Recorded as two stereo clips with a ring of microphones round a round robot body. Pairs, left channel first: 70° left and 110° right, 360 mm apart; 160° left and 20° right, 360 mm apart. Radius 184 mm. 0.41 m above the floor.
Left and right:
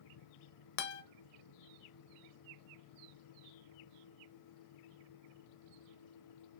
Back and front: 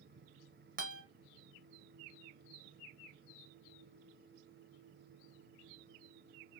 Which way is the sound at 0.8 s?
50° left.